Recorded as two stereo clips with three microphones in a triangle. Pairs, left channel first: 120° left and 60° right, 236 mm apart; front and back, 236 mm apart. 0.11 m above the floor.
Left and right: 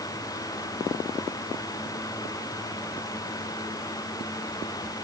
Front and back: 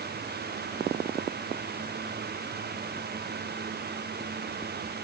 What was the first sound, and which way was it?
Only background noise.